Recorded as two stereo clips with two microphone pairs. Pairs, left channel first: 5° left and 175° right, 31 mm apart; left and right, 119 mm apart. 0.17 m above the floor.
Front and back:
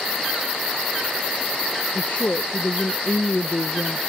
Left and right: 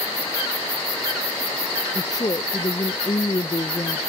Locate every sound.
1.9 s a woman speaking: 40° left